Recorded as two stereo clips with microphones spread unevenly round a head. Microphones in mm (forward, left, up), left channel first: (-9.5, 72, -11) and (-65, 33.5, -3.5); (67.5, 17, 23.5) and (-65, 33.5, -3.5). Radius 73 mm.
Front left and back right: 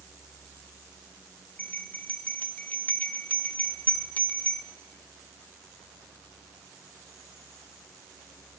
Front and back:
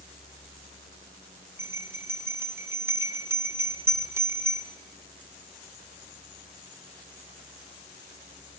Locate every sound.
1.6 s a bell: 100° left, 1.6 m